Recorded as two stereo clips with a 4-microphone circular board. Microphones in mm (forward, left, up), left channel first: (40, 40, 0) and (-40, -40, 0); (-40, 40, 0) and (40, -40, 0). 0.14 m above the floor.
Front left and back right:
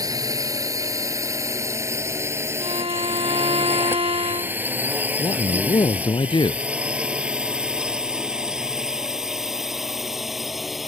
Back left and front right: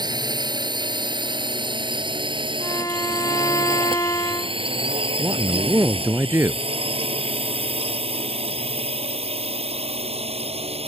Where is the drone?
85° right; by 10.9 s 45° right.